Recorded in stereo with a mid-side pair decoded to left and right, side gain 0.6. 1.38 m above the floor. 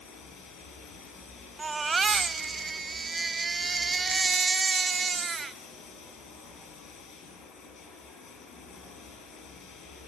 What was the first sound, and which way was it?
Running water, 55° left.